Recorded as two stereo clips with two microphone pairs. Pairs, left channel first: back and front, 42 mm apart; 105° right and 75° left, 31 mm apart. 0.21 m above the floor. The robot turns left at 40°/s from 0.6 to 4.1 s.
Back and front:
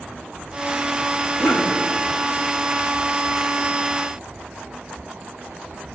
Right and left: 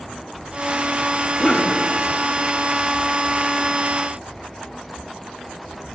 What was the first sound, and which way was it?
A cough, 150° right.